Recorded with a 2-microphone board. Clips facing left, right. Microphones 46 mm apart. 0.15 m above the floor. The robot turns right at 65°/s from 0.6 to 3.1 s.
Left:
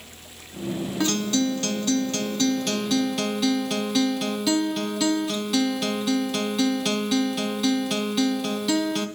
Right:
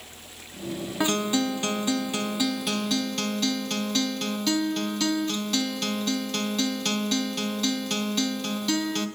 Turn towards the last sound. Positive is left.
turn(degrees=5)  # may be behind; listen again after turning